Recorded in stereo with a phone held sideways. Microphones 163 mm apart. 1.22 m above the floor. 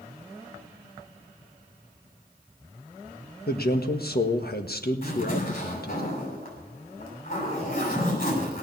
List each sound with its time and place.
3.5 s a man speaking: 75° left (ahead or behind), 1.5 m
5.0 s a zipper: 65° left (ahead or behind), 7 m